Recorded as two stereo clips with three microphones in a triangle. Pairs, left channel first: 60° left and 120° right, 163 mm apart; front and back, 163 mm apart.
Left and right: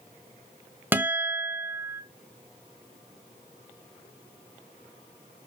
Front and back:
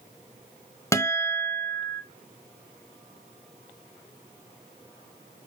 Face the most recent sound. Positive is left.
turn(degrees=-55)